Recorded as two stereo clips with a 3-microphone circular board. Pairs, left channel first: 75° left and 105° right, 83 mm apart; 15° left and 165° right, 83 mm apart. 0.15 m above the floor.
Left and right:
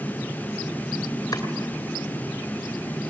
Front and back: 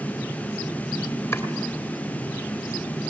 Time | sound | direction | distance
1.3 | chopping | 65° left | 2 m